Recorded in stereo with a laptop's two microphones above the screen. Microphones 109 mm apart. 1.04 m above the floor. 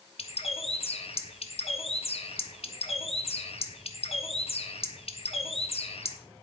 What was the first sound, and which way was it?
A bird, 65° left (ahead or behind).